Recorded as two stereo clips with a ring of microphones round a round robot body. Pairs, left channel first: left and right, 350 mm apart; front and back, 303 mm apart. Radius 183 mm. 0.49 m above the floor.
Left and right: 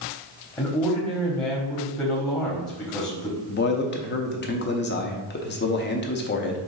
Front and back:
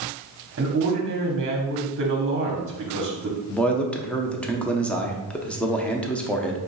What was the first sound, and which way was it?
A man speaking, 165° left.